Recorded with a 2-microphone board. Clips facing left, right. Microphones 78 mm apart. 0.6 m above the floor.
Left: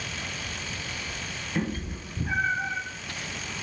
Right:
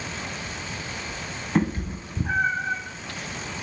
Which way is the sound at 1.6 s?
70° right (ahead or behind).